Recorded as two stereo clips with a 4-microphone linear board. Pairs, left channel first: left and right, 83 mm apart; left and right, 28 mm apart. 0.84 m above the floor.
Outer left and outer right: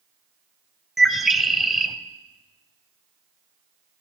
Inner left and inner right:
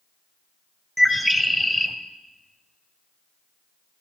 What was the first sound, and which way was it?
A bird, centre (ahead or behind).